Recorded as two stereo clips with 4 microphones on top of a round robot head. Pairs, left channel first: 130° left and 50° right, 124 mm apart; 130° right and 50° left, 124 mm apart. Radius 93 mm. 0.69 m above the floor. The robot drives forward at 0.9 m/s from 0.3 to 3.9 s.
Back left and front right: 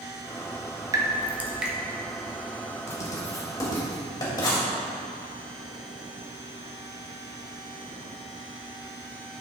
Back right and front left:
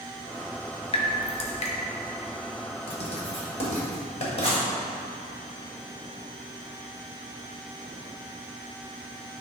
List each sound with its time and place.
0.9 s dripping: 105° right, 1.2 m; by 1.7 s 135° right, 1.6 m
2.9 s writing: 165° right, 1.8 m; by 4.7 s 170° right, 2.5 m